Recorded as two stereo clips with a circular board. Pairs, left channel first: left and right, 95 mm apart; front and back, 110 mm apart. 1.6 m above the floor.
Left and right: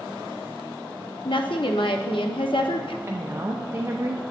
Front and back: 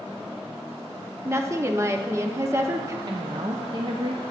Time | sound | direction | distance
1.2 | a woman speaking | 115° left | 0.6 m
3.1 | a woman speaking | 145° right | 0.5 m